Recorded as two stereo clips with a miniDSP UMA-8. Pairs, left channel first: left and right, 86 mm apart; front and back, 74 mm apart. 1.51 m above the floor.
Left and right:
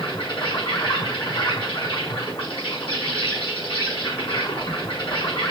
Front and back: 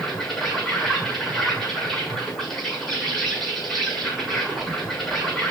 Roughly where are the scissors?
I don't hear scissors.